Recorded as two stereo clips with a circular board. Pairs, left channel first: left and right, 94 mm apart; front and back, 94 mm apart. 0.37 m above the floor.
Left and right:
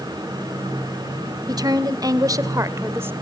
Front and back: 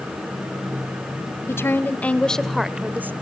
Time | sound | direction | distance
1.5 | a woman speaking | 55° right | 1.7 m